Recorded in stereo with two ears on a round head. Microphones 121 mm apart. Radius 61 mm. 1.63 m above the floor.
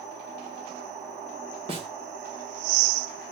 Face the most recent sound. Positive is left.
turn(degrees=-40)  # may be behind; listen again after turning